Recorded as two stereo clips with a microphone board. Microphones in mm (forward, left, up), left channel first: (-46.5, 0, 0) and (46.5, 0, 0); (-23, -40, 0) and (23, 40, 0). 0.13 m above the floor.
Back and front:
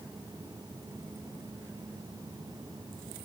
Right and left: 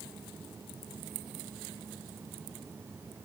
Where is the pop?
I don't hear a pop.